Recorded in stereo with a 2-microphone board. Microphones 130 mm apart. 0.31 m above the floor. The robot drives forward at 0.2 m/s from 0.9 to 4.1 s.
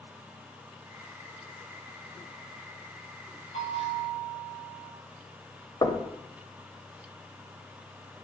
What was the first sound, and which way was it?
A bell, 50° left (ahead or behind).